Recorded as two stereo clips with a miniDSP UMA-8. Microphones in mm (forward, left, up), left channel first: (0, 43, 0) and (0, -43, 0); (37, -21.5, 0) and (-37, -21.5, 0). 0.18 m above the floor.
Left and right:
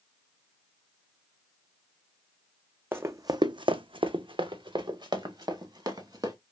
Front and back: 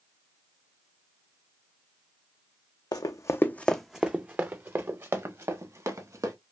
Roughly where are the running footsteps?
Ahead right.